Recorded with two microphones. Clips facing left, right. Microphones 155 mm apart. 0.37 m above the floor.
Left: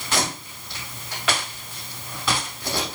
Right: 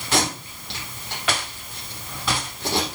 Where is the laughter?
No laughter in this recording.